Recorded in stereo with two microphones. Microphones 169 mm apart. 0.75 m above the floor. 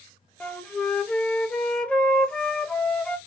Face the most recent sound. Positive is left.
turn(degrees=5)  # may be behind; listen again after turning